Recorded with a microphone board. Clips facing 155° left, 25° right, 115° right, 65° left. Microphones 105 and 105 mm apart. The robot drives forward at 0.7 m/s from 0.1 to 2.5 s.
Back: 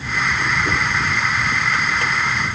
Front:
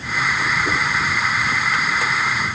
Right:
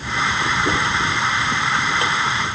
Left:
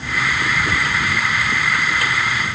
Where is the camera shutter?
No camera shutter in this recording.